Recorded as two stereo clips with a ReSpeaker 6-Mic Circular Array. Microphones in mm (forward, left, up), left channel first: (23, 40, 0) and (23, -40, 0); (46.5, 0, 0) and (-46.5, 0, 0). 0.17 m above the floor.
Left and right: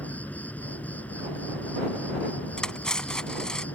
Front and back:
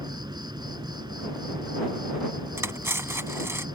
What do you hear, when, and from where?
0.0 s an insect: 155° left
2.6 s cutlery clinking: 160° left